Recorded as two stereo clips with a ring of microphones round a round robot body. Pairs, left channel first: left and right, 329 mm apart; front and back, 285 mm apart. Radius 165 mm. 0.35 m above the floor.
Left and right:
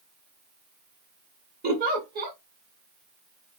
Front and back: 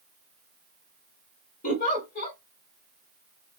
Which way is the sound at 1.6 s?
45° right.